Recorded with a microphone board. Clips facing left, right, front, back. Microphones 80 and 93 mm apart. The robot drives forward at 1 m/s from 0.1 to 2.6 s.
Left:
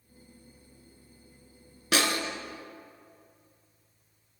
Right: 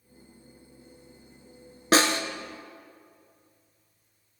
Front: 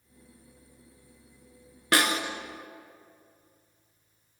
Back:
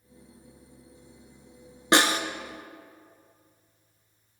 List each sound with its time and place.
1.9 s a snare drum: 125° right, 0.7 m; by 2.2 s 140° right, 0.9 m